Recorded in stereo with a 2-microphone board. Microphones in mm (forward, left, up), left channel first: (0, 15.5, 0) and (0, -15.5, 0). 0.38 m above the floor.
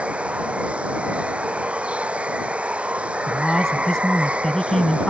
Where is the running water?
40° right (ahead or behind).